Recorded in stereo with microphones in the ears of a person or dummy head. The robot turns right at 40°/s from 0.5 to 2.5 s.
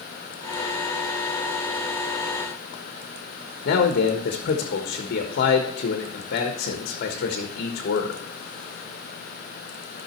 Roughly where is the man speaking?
Left.